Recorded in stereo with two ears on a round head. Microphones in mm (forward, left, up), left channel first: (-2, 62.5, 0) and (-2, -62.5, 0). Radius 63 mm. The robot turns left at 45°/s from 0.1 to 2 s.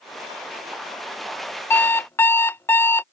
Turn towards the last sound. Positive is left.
turn(degrees=15)  # may be behind; listen again after turning